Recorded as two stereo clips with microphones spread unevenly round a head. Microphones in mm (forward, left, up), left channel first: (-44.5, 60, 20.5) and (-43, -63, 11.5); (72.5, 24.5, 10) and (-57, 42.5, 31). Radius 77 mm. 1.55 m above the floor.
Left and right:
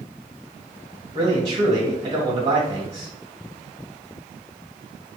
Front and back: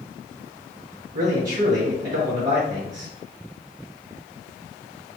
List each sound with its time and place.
1.1 s a man speaking: 125° right, 2.5 m